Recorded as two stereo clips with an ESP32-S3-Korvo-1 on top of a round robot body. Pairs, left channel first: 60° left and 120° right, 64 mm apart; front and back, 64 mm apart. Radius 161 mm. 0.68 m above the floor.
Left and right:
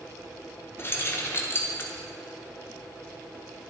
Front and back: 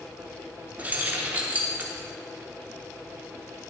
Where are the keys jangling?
115° left, 1.3 m.